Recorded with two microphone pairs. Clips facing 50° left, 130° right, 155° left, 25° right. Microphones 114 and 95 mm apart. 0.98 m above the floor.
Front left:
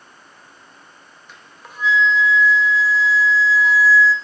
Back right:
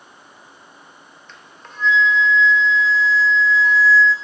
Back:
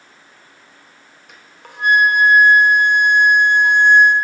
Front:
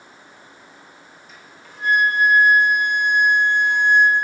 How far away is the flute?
About 0.9 m.